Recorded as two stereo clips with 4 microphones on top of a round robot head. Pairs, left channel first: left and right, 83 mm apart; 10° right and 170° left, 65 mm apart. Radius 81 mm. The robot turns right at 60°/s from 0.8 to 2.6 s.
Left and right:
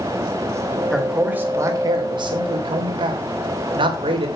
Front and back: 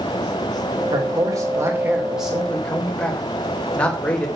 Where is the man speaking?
175° left, 3 m; by 4.3 s 85° right, 3 m.